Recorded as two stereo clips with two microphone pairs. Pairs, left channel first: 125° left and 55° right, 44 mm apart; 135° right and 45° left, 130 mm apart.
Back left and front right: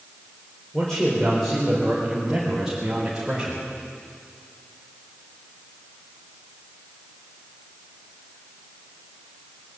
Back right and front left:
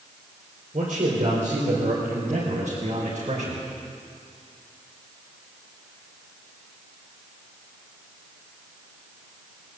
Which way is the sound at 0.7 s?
45° left.